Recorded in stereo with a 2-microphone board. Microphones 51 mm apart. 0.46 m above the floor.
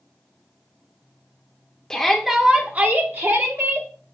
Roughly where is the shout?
Centre.